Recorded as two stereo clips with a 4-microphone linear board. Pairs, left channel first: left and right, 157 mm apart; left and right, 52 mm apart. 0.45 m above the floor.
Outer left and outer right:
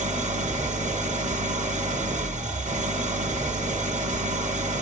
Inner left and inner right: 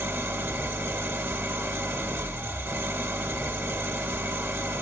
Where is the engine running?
50° right (ahead or behind), 0.8 m.